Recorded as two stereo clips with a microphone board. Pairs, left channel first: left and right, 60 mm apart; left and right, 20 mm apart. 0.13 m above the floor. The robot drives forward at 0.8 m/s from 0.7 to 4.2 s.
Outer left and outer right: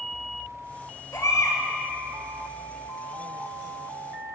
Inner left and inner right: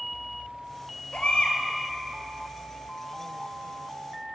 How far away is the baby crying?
About 1.7 m.